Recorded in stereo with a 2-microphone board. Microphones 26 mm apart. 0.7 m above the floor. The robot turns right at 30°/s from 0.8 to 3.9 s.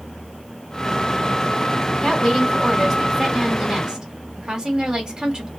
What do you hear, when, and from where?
2.0 s a woman speaking: 150° left, 1.6 m; by 5.5 s 155° right, 1.6 m